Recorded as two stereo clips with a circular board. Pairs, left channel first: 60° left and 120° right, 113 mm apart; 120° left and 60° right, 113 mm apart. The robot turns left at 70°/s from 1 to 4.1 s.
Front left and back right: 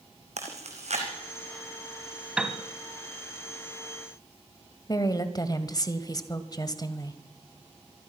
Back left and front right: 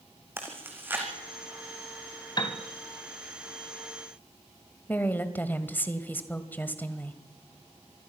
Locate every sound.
0.4 s chewing: 130° right, 4.5 m; by 1.1 s 135° right, 4.5 m
2.4 s a piano: 160° left, 2 m; by 2.6 s 145° left, 2 m
4.9 s a woman speaking: 60° left, 1.6 m